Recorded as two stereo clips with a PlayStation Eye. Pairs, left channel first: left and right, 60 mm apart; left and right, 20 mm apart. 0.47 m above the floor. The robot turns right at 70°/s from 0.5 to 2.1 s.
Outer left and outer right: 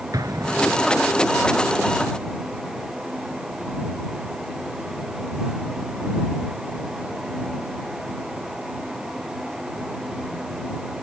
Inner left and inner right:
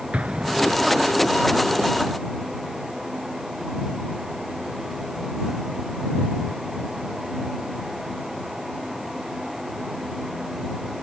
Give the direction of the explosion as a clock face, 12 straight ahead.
3 o'clock.